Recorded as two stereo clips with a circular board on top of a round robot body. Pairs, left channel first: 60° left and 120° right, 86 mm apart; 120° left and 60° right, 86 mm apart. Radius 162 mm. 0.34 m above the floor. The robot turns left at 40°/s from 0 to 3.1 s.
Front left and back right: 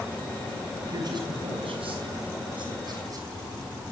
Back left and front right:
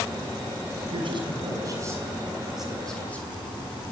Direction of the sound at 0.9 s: 75° right.